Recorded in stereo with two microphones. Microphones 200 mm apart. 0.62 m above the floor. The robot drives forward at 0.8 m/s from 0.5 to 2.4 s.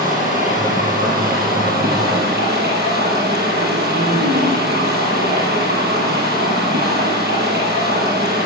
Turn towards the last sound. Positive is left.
turn(degrees=-55)  # may be behind; listen again after turning